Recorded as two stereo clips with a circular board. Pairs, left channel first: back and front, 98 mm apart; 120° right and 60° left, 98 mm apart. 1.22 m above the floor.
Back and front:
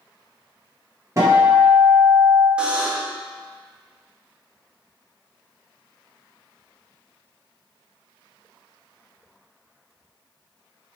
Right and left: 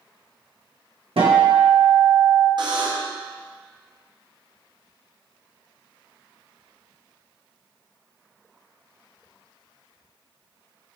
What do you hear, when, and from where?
1.2 s a guitar: 55° left, 1.1 m
2.6 s a buzzer: 75° left, 0.7 m